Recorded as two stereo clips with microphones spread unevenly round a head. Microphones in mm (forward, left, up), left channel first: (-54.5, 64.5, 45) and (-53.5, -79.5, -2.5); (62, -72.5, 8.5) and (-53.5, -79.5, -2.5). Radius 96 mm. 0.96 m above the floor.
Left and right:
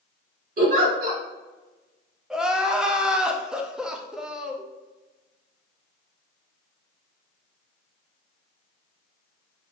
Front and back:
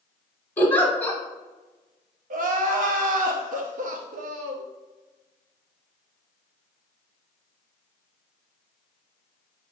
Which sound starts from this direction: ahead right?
A giggle, at 0.6 s.